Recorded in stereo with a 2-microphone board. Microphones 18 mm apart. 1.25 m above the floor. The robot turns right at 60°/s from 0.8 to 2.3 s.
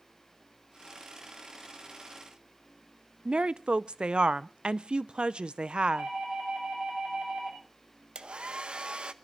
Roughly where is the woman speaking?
Right.